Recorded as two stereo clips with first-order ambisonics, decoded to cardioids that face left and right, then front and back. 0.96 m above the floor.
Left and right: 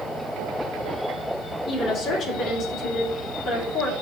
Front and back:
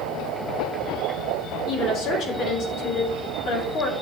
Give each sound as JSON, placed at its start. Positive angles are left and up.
{"t": 1.7, "sound": "a woman speaking", "azimuth_deg": 35, "distance_m": 2.0}